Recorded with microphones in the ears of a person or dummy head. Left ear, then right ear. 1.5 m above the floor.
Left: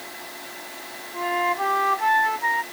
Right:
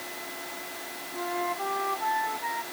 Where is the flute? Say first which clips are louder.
Left 8 dB; 75° left (ahead or behind).